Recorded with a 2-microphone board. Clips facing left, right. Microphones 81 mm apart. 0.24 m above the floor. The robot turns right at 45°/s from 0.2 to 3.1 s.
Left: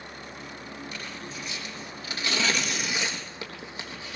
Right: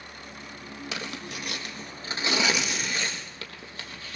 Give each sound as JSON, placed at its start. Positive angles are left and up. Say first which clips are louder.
{"t": 0.9, "sound": "tearing paper", "louder": "right 2 dB", "side_deg": -80, "distance_m": 3.5}